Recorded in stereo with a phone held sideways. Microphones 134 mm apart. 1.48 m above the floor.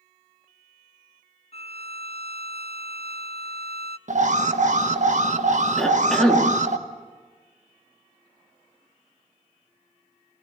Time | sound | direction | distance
1.5 | a violin | 50° left (ahead or behind) | 0.6 m
4.1 | an alarm | 60° right (ahead or behind) | 1.3 m
5.8 | a cough | 5° left (ahead or behind) | 3.5 m